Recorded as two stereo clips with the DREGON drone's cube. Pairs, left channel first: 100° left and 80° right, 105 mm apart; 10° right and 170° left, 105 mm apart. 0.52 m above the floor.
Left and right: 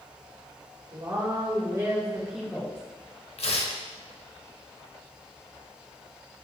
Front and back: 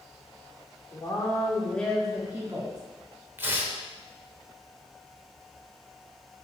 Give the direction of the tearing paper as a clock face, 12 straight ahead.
9 o'clock.